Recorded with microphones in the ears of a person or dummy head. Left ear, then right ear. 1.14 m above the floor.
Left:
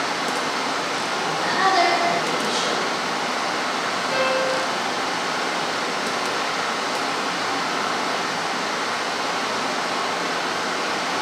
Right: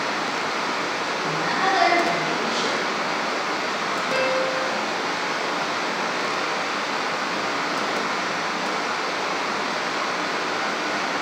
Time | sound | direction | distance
0.0 | running water | 10° right (ahead or behind) | 1.1 m
1.2 | a woman speaking | 30° left (ahead or behind) | 1.3 m
4.1 | a piano | centre (ahead or behind) | 0.6 m